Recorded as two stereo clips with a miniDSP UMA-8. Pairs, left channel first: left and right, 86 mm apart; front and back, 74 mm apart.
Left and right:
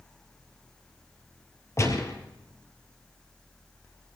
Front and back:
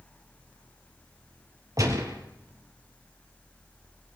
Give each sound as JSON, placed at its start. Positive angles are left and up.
{"t": 1.8, "sound": "a gunshot", "azimuth_deg": 145, "distance_m": 3.0}